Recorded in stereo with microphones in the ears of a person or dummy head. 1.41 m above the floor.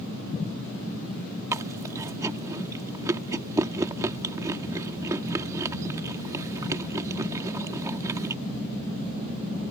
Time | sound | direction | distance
1.5 | chewing | 15° right (ahead or behind) | ?